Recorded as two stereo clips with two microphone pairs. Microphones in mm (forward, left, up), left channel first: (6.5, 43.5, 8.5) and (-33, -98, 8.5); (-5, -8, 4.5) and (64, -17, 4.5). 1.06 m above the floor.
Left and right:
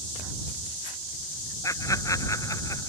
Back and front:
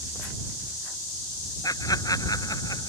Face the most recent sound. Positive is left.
turn(degrees=145)